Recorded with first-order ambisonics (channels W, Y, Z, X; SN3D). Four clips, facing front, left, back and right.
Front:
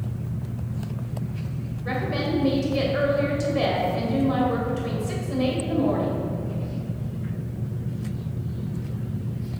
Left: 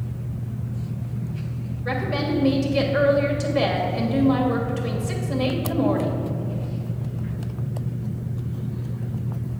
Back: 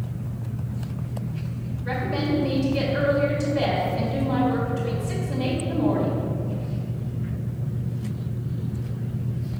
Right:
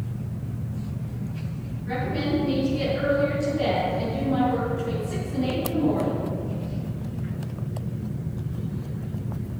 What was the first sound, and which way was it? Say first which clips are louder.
A woman speaking: left 2 dB, back 1 dB; 75° left.